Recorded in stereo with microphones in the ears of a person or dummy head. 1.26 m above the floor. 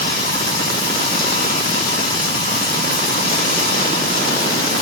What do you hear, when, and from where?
0.0 s running water: 60° left (ahead or behind), 2 m